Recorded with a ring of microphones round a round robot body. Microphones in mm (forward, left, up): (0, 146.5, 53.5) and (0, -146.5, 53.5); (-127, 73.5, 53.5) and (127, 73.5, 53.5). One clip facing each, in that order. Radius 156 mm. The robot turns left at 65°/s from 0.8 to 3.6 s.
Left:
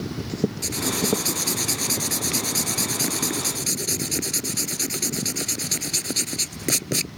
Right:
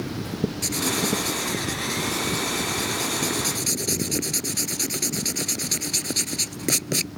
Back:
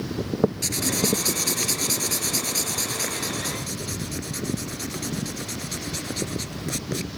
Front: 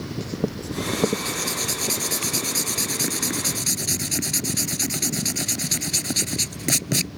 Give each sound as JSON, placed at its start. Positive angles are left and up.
{"t": 0.6, "sound": "writing", "azimuth_deg": 180}